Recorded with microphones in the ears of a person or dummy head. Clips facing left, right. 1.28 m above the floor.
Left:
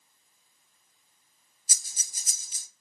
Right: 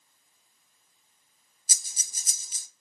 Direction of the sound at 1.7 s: 85° right.